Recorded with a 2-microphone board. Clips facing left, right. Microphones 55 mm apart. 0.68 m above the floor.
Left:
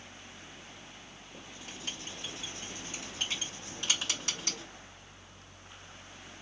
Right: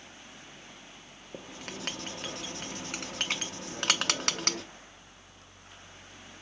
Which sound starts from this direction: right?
Writing, at 1.3 s.